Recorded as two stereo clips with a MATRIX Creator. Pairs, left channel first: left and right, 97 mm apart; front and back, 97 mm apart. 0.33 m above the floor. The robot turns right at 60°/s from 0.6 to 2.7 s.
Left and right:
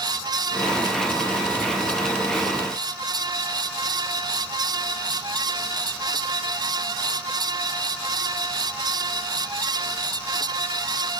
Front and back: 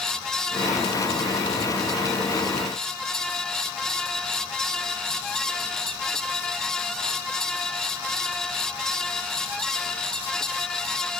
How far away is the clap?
I don't hear a clap.